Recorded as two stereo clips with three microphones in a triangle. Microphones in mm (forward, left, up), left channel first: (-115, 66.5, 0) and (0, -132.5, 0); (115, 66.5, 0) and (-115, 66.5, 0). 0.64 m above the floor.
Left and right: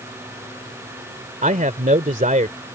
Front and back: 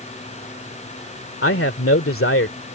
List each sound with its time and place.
1.4 s a man speaking: 10° right